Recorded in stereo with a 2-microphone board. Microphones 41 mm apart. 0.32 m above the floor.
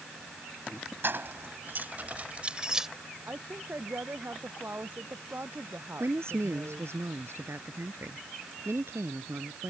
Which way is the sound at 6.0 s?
75° right (ahead or behind).